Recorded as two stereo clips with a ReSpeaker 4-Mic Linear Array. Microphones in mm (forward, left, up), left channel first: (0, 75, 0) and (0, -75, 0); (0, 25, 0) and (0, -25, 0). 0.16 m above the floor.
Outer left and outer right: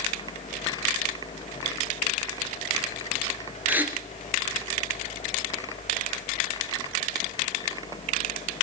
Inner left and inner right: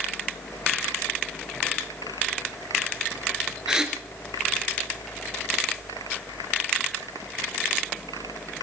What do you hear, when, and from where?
3.7 s a gasp: 10° right (ahead or behind), 2 m